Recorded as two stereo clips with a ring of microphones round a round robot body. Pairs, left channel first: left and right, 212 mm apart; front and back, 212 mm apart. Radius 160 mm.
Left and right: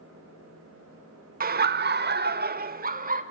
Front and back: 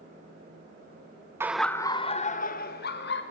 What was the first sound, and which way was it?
Laughter, 105° right.